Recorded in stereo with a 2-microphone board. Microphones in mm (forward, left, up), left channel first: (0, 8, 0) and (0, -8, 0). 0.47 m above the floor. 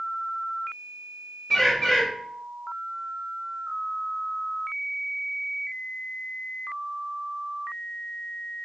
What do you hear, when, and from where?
1.5 s a bird: 35° left (ahead or behind), 1.4 m